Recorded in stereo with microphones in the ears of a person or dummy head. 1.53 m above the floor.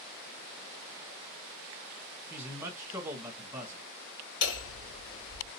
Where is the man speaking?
15° right (ahead or behind), 1.2 m.